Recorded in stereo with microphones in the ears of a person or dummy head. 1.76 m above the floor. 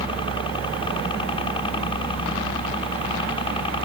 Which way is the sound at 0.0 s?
25° left (ahead or behind).